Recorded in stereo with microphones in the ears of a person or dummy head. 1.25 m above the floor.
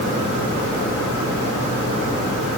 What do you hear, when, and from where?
Only background noise.